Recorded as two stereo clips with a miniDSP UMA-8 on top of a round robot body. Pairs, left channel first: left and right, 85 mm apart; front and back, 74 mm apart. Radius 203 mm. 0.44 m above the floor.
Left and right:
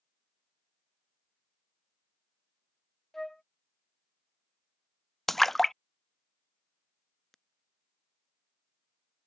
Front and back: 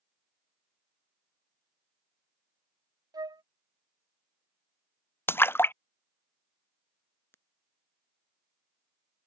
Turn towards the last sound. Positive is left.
turn(degrees=5)